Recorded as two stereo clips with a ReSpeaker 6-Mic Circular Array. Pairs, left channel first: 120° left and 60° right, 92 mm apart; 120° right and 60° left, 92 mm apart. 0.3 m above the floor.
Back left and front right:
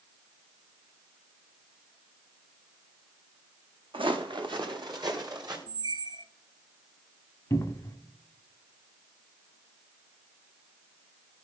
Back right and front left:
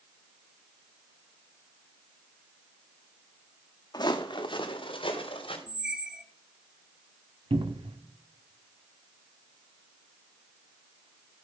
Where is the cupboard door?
65° left, 0.9 m.